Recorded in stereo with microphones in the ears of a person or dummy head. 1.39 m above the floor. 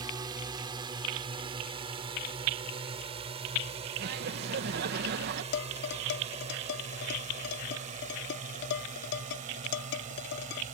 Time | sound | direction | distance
0.0 | a drone | 20° right (ahead or behind) | ?
4.0 | laughter | 60° right (ahead or behind) | ?
5.5 | dishes clattering | 70° left (ahead or behind) | ?